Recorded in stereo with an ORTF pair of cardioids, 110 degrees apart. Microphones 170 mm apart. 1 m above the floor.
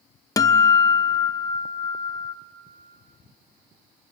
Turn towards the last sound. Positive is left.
turn(degrees=20)